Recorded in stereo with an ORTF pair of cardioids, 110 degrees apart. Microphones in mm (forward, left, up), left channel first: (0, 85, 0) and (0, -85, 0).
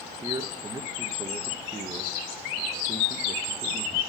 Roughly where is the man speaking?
Ahead.